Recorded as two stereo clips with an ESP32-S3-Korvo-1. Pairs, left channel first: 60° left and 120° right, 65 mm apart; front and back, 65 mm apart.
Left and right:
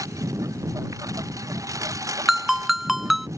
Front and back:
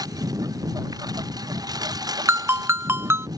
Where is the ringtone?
155° left.